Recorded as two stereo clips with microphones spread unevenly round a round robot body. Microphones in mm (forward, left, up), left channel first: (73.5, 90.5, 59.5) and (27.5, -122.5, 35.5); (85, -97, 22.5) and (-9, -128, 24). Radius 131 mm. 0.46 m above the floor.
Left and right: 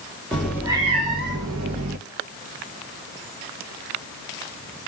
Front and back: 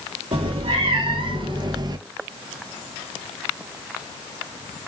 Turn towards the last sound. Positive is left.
turn(degrees=-120)